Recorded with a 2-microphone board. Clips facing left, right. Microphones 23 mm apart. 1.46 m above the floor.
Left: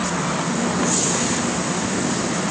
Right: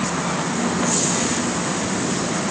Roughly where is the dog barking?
No dog barking in this recording.